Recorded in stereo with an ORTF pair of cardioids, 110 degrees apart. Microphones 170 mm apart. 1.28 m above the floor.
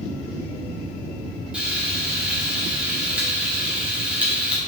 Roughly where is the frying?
Ahead.